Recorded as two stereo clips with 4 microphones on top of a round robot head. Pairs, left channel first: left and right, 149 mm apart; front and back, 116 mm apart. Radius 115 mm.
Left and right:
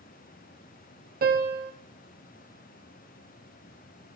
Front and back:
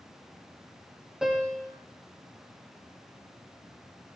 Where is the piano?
95° right, 2.5 m.